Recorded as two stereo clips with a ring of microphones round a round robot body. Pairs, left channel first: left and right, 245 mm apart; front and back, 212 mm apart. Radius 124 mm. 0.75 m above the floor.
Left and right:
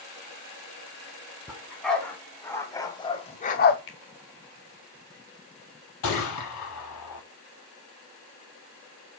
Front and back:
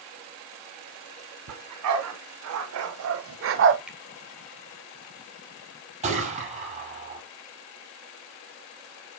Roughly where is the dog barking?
Behind.